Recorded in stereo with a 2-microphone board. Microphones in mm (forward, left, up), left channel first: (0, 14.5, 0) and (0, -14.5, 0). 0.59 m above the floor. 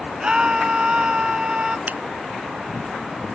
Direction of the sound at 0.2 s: 30° right (ahead or behind).